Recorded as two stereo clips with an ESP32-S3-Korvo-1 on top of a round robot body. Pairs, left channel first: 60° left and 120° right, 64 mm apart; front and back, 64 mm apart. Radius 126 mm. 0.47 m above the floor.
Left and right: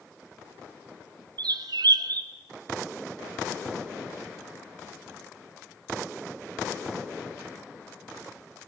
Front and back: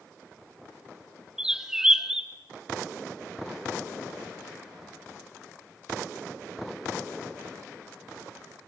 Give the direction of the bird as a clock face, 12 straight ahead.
3 o'clock.